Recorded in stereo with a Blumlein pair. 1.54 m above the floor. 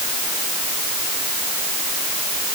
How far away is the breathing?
I don't hear breathing.